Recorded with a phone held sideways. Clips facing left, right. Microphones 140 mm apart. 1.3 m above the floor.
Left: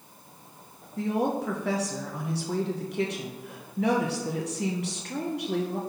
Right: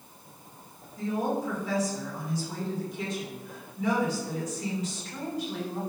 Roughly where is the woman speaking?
Left.